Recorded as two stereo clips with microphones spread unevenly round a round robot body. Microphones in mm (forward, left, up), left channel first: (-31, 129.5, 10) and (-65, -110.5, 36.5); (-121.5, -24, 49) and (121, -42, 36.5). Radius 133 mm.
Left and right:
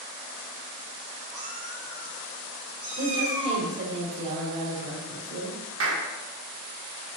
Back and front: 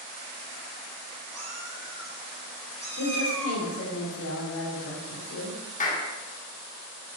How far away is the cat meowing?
About 3.5 m.